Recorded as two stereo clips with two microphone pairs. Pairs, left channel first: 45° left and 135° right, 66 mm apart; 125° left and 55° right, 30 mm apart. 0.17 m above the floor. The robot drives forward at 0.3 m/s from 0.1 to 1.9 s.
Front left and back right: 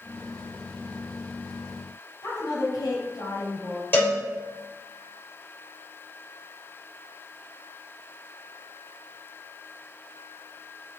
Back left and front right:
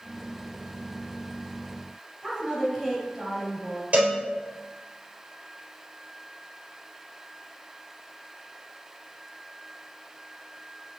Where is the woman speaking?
35° left, 3 m.